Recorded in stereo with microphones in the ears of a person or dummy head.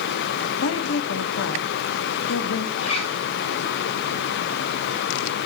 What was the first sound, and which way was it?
A woman speaking, 85° left.